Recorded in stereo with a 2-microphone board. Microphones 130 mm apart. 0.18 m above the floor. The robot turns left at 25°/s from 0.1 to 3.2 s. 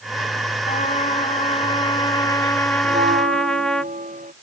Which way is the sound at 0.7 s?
70° left.